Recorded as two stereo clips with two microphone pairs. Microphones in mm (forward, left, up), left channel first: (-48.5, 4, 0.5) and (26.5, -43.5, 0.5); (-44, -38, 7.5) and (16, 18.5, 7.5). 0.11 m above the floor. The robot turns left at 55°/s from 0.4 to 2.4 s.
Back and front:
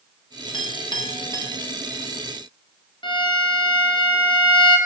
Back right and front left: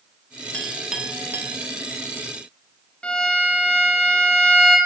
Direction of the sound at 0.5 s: 150° left.